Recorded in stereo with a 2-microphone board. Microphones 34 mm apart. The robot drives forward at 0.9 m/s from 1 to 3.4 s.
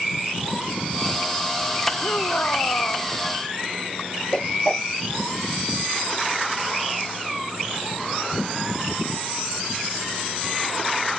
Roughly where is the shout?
Left.